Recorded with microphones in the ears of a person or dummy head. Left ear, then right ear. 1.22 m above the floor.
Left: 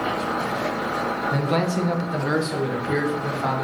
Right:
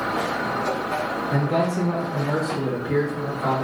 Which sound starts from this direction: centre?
A man speaking, at 1.3 s.